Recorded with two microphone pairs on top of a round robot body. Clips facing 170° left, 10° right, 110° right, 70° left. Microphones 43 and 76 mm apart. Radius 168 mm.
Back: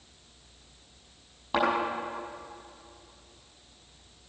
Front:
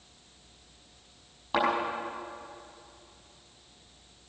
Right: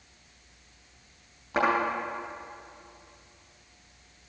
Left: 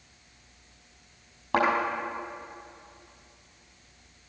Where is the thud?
85° left, 6 m.